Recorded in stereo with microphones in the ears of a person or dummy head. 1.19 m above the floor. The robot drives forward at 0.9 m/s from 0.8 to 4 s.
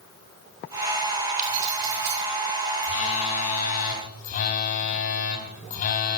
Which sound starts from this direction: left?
A phone buzzing, at 2.8 s.